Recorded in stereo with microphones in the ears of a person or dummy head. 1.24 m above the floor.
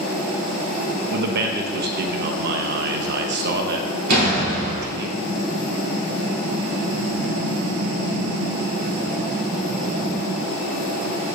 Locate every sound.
1.1 s a man speaking: 55° right (ahead or behind), 0.8 m
4.1 s a door slam: 55° right (ahead or behind), 2.5 m